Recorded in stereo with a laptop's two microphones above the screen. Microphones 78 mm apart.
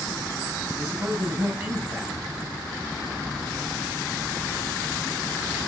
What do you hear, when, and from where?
0.8 s a man speaking: 20° right (ahead or behind), 7.5 m